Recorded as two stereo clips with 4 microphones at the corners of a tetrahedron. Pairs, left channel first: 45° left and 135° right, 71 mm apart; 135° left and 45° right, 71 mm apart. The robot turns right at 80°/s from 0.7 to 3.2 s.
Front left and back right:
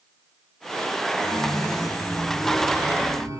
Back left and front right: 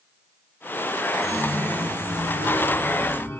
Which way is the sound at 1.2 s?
30° left.